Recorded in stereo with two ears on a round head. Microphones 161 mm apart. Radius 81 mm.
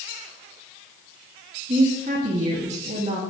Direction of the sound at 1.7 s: 35° right (ahead or behind).